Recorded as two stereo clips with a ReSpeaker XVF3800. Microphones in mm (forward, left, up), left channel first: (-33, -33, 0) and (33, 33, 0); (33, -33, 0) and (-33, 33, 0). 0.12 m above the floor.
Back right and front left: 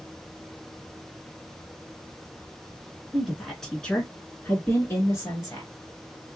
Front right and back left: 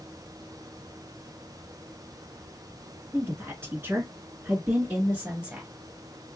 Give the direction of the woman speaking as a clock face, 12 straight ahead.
8 o'clock.